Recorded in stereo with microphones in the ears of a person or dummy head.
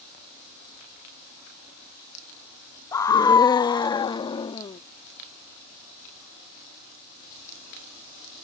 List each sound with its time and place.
2.9 s a scream: 20° left (ahead or behind); by 4.8 s 30° left (ahead or behind)